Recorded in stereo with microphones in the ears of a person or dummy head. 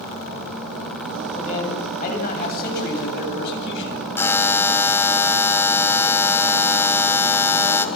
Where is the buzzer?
15° left (ahead or behind), 1.2 m.